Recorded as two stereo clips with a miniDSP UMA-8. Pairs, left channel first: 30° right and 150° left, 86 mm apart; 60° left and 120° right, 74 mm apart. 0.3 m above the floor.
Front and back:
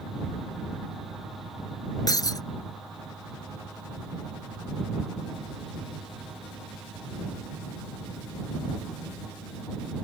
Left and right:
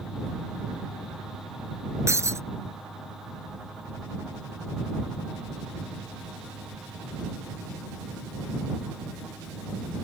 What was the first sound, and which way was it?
Breaking glass, 70° right.